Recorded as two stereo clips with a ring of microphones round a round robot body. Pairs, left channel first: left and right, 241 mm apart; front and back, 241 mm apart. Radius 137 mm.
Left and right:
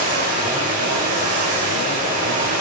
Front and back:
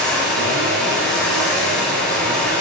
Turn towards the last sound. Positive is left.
turn(degrees=-85)